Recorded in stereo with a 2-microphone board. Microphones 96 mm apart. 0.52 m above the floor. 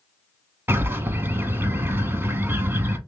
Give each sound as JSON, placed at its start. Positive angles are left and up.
{"t": 0.7, "sound": "a bird", "side_deg": -25, "distance_m": 0.6}